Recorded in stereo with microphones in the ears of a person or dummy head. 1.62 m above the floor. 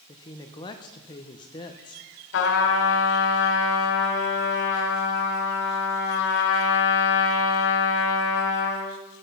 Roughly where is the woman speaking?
Left.